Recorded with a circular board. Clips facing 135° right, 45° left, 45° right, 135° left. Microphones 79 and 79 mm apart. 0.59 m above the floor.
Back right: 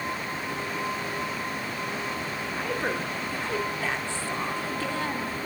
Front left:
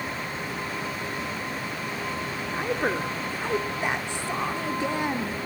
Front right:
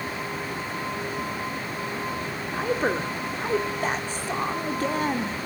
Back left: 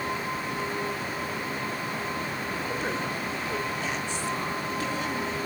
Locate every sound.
2.5 s a woman speaking: 20° right, 1.8 m